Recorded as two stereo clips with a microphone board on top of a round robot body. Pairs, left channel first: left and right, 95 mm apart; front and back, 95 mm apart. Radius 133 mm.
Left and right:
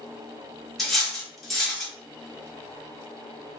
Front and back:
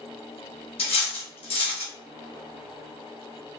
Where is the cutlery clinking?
Straight ahead, 1.8 m.